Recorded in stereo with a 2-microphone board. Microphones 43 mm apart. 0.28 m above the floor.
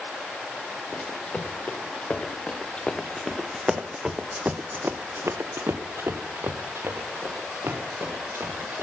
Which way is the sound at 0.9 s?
30° left (ahead or behind).